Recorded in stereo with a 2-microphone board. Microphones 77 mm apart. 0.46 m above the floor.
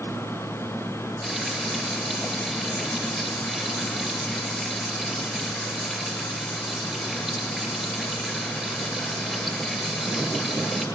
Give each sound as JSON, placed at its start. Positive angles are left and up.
{"t": 1.2, "sound": "frying", "side_deg": -5, "distance_m": 9.5}